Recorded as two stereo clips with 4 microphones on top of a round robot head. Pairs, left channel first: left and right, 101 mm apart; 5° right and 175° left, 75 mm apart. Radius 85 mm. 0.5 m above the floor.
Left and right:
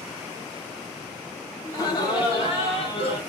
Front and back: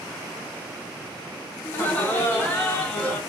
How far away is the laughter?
About 1.3 m.